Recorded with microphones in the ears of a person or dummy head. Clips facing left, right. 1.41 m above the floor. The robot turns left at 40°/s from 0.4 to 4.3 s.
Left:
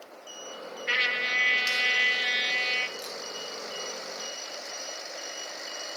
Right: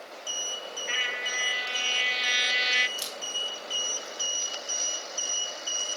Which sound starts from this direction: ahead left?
A trumpet, at 0.9 s.